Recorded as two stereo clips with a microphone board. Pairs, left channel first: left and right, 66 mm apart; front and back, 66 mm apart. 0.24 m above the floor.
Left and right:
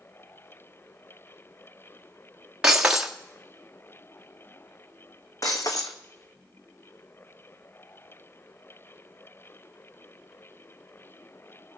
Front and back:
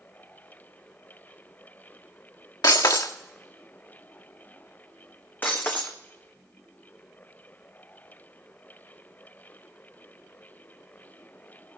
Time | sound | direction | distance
2.6 | breaking glass | 15° right | 1.6 m
5.4 | breaking glass | 60° left | 1.6 m